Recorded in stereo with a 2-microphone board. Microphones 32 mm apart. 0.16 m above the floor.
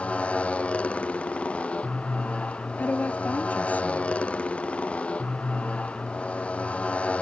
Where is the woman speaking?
60° left (ahead or behind).